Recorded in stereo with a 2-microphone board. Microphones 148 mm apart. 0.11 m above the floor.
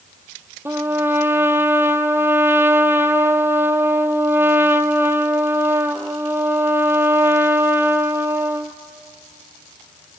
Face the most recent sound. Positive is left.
turn(degrees=-15)  # may be behind; listen again after turning